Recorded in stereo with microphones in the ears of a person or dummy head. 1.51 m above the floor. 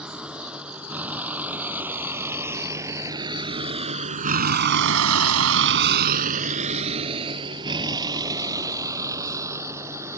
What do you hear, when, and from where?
0.0 s a vehicle: 5° right (ahead or behind); by 10.2 s 15° right (ahead or behind)